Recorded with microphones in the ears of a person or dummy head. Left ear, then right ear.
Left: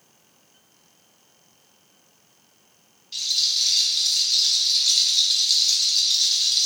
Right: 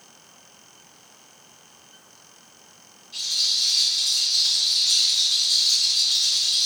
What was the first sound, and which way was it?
A rattle, 60° left (ahead or behind).